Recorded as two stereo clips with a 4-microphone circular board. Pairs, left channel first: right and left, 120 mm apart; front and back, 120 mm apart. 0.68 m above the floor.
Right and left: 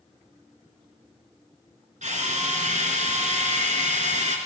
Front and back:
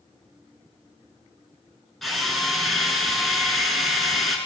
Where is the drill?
90° left, 4.5 m.